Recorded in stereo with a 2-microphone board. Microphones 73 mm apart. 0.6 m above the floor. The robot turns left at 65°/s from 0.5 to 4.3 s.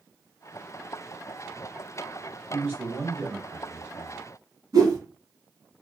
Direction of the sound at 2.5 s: 60° right.